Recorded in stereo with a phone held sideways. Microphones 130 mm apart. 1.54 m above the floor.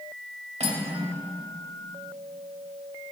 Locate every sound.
0.6 s cutlery clinking: 50° right (ahead or behind), 1.9 m